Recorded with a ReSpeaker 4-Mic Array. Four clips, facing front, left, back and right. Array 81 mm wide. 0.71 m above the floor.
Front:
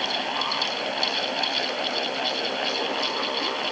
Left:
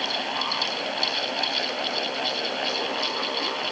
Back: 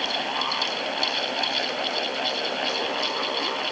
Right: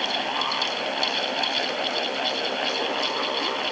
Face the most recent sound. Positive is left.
No sound to turn to.